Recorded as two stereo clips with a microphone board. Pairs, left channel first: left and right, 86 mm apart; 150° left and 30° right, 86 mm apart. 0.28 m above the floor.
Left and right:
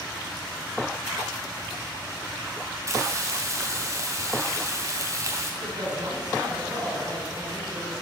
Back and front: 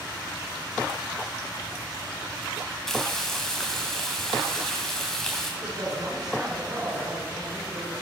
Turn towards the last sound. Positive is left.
turn(degrees=-65)